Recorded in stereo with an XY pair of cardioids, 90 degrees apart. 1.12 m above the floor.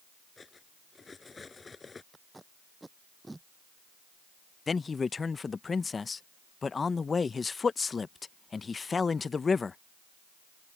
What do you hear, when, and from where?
0.4 s cutlery clinking: 35° left
2.1 s tape being pulled: 15° right
4.7 s a man speaking: 35° left